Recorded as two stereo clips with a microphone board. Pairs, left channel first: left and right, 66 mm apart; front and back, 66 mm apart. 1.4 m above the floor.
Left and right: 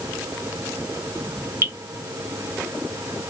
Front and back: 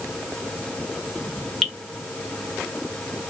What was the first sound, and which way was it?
Dripping, 85° right.